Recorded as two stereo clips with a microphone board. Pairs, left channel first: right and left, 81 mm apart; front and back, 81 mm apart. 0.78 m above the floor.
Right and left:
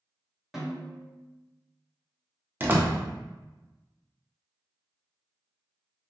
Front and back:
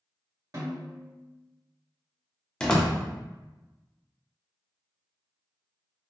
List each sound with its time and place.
0.5 s a snare drum: 175° left, 1.2 m
2.6 s a door slam: 70° left, 0.5 m